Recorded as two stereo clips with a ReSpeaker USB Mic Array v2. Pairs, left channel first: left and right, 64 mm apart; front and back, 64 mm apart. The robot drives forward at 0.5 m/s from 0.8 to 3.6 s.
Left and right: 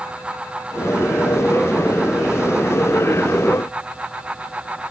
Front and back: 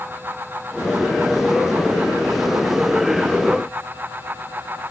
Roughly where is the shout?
I don't hear a shout.